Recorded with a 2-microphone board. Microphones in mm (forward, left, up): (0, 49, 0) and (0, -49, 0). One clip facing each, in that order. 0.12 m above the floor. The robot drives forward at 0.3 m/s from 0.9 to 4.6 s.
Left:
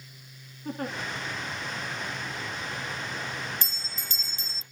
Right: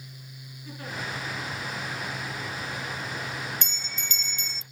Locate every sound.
0.7 s a giggle: 50° left (ahead or behind), 5 m
3.6 s a bell: 35° left (ahead or behind), 0.5 m